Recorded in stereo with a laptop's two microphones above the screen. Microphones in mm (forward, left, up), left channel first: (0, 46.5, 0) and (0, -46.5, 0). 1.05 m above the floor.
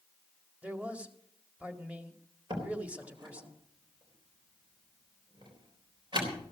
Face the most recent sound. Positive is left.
turn(degrees=-55)  # may be behind; listen again after turning